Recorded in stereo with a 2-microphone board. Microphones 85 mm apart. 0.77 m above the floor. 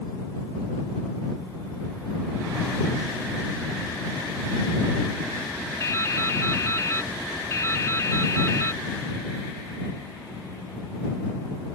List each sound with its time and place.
5.8 s dripping: 35° left (ahead or behind)